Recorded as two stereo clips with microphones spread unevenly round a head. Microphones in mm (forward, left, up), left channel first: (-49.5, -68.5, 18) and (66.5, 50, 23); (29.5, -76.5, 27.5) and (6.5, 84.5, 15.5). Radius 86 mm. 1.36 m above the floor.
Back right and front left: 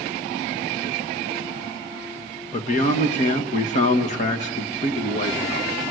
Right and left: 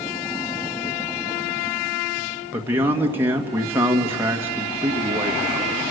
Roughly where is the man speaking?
Behind.